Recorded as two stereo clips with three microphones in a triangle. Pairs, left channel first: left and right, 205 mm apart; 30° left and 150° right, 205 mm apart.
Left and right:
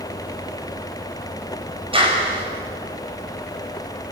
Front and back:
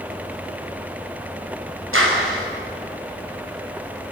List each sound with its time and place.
1.9 s a clap: 155° right, 5.5 m